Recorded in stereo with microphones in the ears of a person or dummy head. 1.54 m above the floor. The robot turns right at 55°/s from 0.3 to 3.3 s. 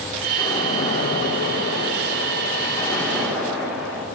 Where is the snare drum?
I don't hear a snare drum.